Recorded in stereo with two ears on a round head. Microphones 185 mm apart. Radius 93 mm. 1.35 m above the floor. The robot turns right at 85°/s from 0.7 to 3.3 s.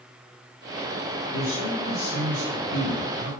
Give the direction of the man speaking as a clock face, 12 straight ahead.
10 o'clock.